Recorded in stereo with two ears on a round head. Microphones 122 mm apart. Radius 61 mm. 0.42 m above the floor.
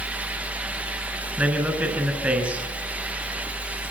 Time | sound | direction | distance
1.4 | a man speaking | 10° right (ahead or behind) | 6.5 m